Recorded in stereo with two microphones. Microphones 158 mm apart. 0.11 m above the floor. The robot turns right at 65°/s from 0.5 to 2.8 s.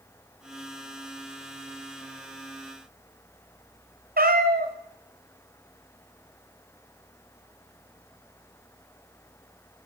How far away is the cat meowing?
About 1.3 m.